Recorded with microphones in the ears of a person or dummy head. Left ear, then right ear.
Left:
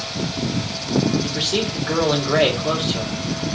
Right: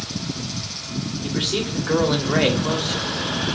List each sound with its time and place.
1.2 s a man speaking: 5° left (ahead or behind), 1.8 m